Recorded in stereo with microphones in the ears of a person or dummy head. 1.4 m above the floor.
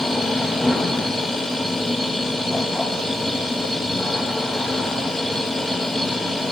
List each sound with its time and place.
0.0 s a machine running: 5° left (ahead or behind), 0.8 m